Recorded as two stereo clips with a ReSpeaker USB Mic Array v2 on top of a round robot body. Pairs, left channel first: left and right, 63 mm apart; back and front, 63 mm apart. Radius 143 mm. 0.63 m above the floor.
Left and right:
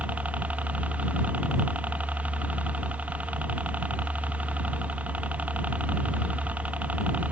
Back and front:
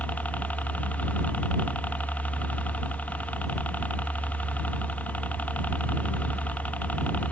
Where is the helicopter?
135° right.